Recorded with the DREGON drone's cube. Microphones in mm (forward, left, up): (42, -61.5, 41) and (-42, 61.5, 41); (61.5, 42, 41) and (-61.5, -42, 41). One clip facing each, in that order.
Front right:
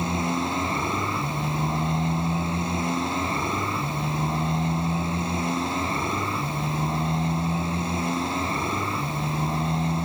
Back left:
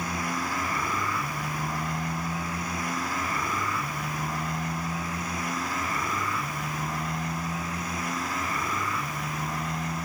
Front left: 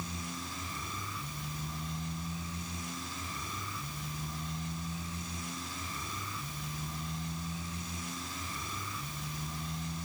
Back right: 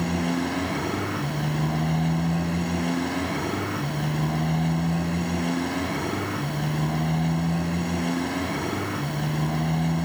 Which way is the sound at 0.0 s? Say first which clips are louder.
Front right 5 dB, back right 17 dB; 120° right.